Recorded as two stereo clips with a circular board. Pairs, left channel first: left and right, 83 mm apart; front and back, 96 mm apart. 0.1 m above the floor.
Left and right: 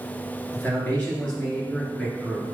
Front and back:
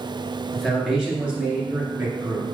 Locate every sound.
0.5 s a man speaking: 80° left, 1.7 m; by 2.5 s 170° left, 2 m